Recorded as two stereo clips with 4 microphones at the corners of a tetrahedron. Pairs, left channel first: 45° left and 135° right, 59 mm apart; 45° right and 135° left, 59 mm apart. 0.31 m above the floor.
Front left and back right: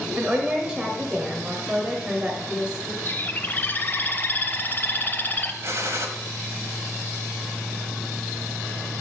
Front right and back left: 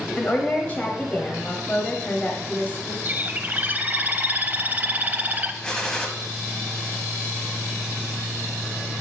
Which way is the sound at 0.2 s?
75° right.